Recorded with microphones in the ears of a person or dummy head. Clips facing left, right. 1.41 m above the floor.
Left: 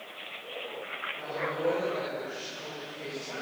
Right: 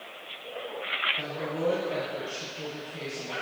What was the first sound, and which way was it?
A woman speaking, 70° right (ahead or behind).